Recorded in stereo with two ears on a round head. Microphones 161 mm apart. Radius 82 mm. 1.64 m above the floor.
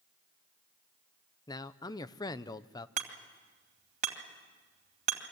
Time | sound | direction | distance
1.5 | a man speaking | 25° left (ahead or behind) | 0.8 m
3.0 | hammering | 45° right (ahead or behind) | 2.5 m